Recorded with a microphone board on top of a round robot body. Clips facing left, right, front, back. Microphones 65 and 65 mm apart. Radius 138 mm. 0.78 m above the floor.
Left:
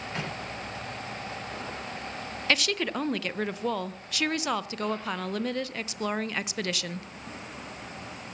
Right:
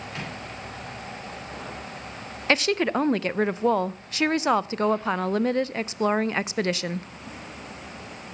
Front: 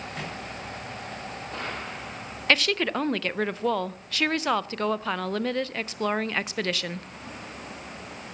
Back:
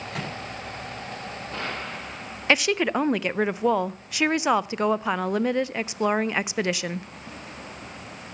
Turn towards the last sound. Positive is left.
turn(degrees=-115)